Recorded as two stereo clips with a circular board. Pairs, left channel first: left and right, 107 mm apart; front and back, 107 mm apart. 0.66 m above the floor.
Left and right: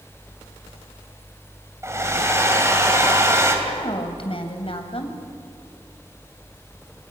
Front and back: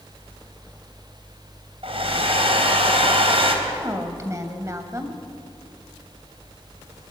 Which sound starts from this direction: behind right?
A hair dryer, at 1.8 s.